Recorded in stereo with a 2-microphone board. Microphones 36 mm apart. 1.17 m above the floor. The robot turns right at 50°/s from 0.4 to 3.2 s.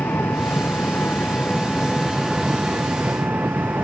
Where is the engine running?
95° left; by 3.8 s 125° right.